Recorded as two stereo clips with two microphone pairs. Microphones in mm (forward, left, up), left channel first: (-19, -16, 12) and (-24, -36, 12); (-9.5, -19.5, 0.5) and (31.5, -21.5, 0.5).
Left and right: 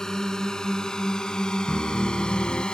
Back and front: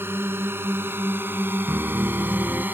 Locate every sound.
0.0 s a drone: 15° left; by 2.8 s 35° left
1.7 s a piano: 70° left